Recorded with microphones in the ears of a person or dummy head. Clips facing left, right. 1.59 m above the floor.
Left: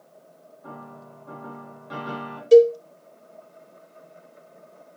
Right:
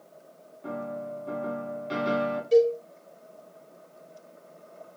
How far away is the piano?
About 2.5 m.